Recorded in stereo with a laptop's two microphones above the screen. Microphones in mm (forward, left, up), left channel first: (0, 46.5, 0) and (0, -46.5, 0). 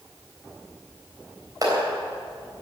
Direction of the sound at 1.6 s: 40° right (ahead or behind).